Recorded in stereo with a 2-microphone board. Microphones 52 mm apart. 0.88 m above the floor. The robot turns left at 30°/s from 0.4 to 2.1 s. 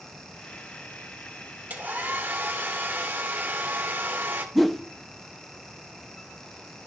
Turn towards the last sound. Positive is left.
turn(degrees=0)  # may be behind; listen again after turning